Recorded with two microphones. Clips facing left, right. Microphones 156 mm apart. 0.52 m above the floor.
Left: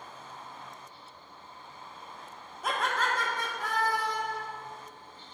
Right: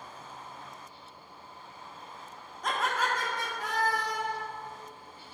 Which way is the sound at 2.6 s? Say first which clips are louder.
Even; 10° left (ahead or behind).